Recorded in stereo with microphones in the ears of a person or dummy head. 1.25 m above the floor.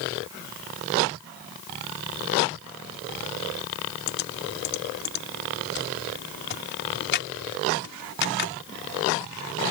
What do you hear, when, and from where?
4.1 s typing on a keyboard: 55° left (ahead or behind)